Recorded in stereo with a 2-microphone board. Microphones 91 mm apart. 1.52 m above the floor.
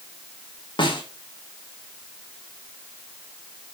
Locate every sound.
0.8 s a snare drum: 60° left (ahead or behind), 3 m